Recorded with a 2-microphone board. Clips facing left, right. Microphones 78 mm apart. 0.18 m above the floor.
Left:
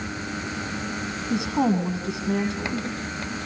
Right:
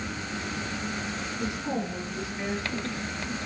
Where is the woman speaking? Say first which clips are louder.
Left 10 dB; 80° left, 9 m.